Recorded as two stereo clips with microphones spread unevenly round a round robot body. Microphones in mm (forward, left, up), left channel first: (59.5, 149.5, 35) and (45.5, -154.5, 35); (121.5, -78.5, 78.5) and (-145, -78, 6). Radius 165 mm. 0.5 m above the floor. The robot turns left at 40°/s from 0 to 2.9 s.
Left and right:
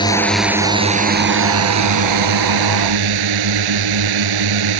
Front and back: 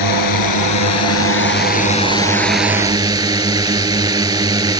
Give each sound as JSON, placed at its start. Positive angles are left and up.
{"t": 0.0, "sound": "a drone", "azimuth_deg": 10}